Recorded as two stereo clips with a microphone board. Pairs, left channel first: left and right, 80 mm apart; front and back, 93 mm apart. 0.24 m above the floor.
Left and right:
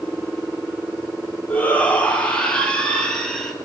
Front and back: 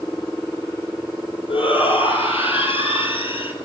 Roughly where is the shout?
Ahead.